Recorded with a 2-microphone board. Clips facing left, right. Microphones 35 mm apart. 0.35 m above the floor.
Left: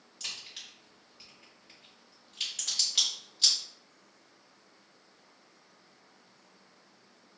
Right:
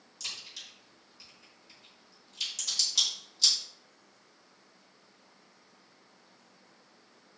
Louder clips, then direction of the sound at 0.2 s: Even; 35° left (ahead or behind).